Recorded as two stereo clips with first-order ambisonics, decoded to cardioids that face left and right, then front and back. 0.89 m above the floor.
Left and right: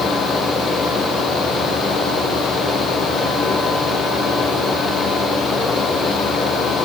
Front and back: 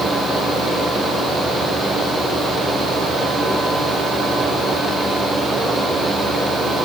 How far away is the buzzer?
No buzzer in this recording.